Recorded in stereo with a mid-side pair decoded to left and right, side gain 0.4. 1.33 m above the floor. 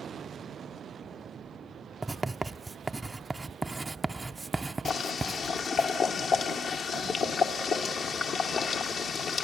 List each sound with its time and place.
2.0 s writing: 20° right, 0.5 m
4.8 s boiling: 65° left, 1.5 m